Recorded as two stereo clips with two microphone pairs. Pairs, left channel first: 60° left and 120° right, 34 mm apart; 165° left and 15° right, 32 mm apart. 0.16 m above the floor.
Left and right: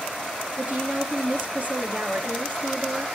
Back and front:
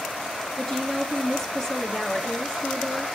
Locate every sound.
0.6 s a woman speaking: 130° right, 2.5 m